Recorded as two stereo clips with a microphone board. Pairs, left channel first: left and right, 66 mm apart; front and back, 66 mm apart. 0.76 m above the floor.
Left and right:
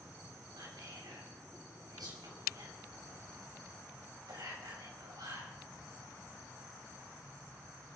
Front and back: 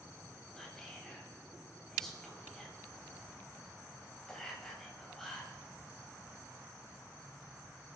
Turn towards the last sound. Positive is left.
turn(degrees=-85)